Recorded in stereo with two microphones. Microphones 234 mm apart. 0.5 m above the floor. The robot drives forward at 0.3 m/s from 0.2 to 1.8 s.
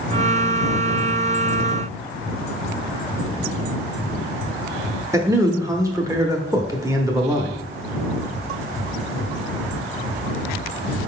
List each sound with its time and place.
5.1 s a man speaking: 15° right (ahead or behind), 0.8 m